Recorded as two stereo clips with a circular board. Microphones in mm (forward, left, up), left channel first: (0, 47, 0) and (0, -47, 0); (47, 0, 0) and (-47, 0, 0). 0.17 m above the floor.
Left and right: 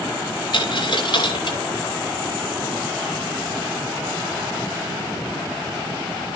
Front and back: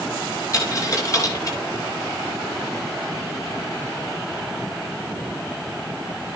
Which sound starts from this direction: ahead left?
A dropped coin, at 0.5 s.